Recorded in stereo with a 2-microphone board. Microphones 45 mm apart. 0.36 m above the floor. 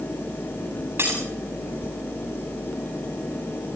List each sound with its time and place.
1.0 s breaking glass: 60° right (ahead or behind), 8 m